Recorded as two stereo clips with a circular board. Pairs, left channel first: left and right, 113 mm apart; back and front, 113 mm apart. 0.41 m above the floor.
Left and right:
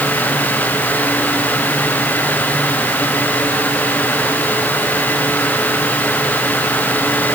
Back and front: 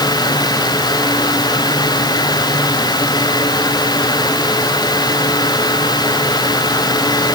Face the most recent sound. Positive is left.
No sound to turn to.